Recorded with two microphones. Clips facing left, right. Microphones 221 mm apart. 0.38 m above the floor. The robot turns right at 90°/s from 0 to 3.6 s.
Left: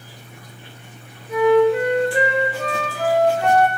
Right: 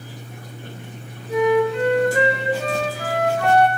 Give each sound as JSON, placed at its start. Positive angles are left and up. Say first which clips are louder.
{"t": 1.3, "sound": "a flute", "louder": "left 3 dB", "azimuth_deg": -35, "distance_m": 2.0}